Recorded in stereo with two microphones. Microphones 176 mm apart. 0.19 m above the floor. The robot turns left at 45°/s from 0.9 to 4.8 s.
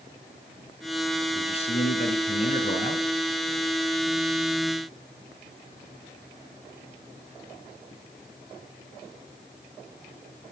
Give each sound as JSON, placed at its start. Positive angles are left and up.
{"t": 1.4, "sound": "a man speaking", "azimuth_deg": 140, "distance_m": 1.9}